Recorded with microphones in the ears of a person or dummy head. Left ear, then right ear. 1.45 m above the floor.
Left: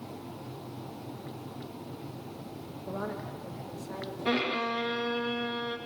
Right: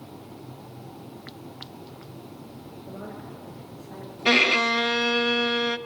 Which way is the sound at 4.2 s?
80° right.